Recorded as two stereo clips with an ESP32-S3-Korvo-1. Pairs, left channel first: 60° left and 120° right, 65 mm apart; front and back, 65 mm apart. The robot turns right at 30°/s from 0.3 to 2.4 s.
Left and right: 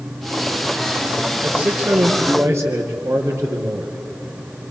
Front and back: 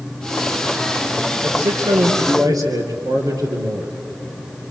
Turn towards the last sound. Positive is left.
turn(degrees=-165)